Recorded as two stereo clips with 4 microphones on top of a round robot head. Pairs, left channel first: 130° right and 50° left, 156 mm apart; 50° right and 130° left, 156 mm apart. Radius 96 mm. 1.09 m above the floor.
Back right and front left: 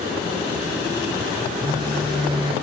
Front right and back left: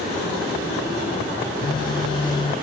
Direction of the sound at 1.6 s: Straight ahead.